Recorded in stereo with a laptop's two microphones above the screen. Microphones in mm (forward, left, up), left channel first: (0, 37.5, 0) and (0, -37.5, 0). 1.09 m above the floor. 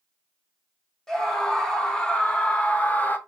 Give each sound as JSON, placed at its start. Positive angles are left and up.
{"t": 1.1, "sound": "a scream", "side_deg": 5, "distance_m": 3.0}